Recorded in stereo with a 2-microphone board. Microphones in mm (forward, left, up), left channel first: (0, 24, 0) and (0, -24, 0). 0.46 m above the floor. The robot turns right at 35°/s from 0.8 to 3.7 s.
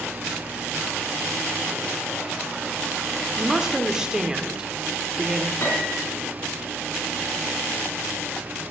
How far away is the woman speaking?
About 0.9 m.